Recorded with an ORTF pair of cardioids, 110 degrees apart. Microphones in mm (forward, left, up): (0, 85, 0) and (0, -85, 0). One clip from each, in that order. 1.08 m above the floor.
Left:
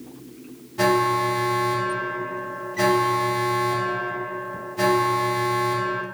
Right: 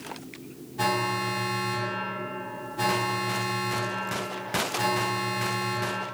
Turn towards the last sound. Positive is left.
turn(degrees=35)